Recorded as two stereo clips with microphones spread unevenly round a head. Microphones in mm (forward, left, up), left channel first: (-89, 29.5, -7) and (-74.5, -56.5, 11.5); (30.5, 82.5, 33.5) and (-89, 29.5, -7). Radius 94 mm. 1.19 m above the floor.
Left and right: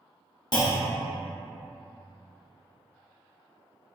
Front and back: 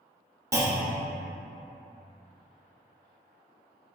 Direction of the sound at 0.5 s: 135° left.